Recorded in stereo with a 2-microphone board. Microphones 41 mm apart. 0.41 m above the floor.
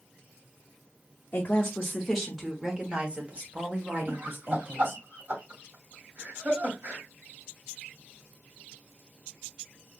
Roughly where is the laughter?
Right.